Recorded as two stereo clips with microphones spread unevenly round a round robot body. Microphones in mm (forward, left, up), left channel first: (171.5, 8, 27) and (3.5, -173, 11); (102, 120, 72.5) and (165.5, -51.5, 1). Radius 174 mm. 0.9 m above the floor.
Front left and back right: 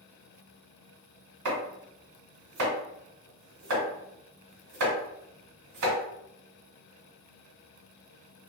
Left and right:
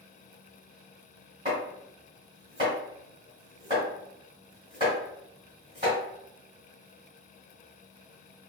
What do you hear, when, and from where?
1.4 s chopping: 155° right, 1.7 m